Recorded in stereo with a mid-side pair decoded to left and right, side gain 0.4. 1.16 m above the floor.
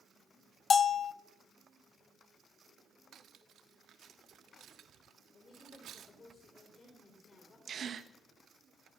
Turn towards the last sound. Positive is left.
turn(degrees=-55)